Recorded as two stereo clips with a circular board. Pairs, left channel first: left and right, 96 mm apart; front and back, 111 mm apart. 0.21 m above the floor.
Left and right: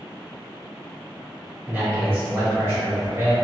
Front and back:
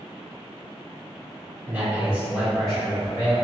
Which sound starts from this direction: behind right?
A man speaking, at 1.7 s.